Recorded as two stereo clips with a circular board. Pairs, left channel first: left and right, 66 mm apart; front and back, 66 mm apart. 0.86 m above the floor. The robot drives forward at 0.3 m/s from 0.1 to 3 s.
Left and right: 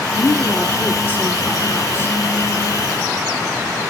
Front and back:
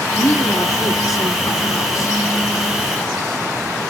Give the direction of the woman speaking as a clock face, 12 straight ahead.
11 o'clock.